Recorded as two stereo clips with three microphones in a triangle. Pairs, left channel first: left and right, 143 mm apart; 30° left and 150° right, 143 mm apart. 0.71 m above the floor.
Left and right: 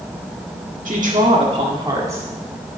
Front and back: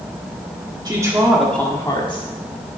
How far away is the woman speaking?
About 1.8 m.